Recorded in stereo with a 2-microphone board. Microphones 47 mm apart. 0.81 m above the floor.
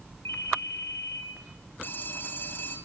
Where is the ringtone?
80° left, 7 m.